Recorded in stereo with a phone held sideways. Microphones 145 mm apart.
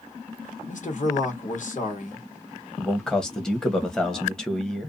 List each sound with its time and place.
0.7 s a man speaking: 60° left (ahead or behind), 1.3 m
2.8 s a man speaking: 5° left (ahead or behind), 0.8 m